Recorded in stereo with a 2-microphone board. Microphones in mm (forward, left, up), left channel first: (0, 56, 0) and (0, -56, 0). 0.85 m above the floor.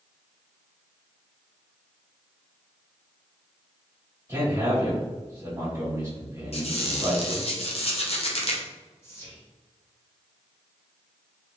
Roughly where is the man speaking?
Right.